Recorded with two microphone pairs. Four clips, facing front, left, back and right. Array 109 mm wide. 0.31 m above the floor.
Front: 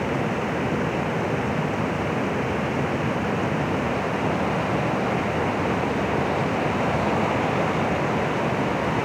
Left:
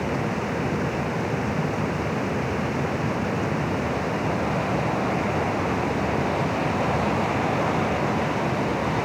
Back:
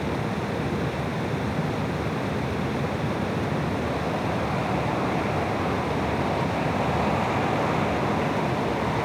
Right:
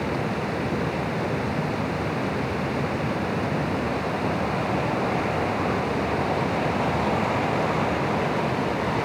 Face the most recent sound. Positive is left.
No sound to turn to.